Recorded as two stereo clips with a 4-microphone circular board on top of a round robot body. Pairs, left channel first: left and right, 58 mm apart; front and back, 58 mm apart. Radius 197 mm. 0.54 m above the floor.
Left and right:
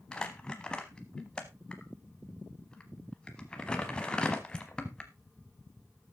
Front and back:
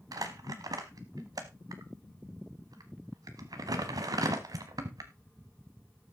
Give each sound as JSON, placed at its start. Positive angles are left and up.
{"t": 0.1, "sound": "crumpling", "azimuth_deg": 165, "distance_m": 0.7}